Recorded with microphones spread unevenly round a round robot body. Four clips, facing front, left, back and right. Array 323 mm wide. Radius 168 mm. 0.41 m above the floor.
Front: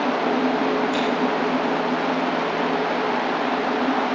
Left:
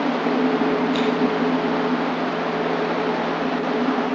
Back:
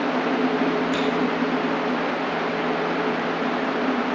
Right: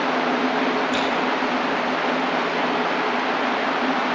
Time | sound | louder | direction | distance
0.9 | scissors | left 1 dB, front 1 dB | 140° right | 5 m